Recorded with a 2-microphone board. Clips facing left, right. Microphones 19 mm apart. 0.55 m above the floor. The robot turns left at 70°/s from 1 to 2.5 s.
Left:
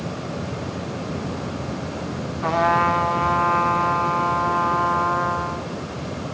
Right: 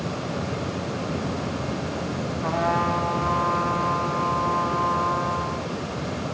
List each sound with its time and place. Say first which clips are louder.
2.4 s a trumpet: left 5 dB; 25° left (ahead or behind), 1.2 m; by 5.7 s 30° left (ahead or behind), 1.2 m